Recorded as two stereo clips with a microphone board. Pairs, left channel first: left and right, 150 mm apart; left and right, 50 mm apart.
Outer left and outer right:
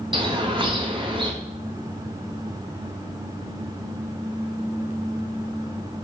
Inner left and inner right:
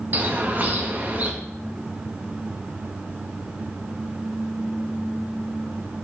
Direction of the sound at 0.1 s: 35° right (ahead or behind).